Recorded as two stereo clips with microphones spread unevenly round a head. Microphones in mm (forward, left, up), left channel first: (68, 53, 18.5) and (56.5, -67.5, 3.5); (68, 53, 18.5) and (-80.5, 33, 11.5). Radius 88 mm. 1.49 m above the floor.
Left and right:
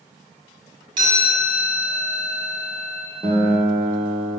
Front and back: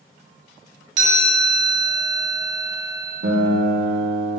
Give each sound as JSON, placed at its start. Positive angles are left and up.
{"t": 1.0, "sound": "a chime", "azimuth_deg": -160, "distance_m": 2.5}
{"t": 3.2, "sound": "a guitar", "azimuth_deg": -170, "distance_m": 1.3}